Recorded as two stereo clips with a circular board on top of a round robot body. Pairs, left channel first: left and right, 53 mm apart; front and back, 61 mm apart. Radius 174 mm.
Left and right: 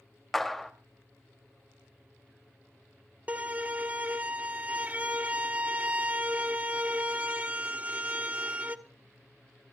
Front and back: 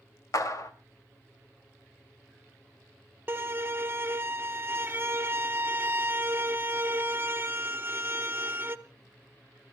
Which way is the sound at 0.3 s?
5° left.